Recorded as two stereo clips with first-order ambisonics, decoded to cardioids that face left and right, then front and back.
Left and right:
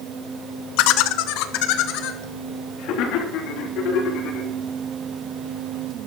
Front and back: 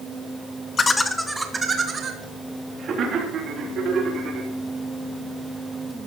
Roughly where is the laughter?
Left.